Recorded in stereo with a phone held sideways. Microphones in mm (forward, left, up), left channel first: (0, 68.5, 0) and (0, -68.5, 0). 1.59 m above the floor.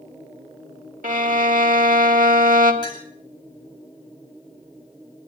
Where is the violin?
80° right, 2.5 m.